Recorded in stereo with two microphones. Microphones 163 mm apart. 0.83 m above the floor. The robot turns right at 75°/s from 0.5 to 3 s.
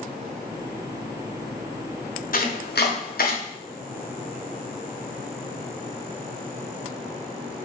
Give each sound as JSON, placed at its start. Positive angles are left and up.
{"t": 2.3, "sound": "chopping", "side_deg": 60, "distance_m": 0.7}